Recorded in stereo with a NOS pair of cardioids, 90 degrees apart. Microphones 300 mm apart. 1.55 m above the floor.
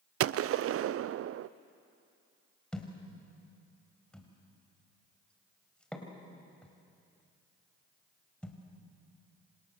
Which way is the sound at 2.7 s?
5° left.